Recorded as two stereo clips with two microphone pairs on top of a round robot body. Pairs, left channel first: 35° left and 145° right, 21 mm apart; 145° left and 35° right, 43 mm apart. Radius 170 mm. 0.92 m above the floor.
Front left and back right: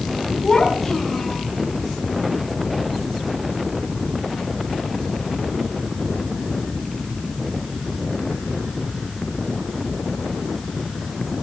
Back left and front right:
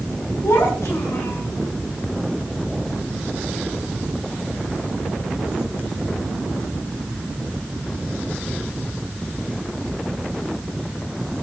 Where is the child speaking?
115° left, 5.5 m.